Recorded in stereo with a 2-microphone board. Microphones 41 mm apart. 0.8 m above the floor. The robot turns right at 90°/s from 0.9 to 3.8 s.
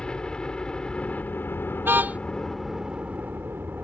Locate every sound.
0.0 s a helicopter: 25° left; by 3.8 s 75° right
1.8 s a car horn: 70° right; by 2.2 s 35° right